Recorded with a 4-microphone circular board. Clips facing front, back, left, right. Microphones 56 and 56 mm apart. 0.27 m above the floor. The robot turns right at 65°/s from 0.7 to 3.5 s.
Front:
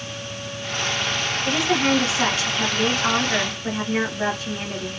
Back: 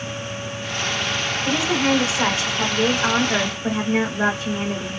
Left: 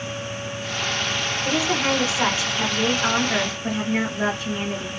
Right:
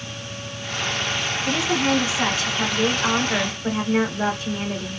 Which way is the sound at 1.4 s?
75° left.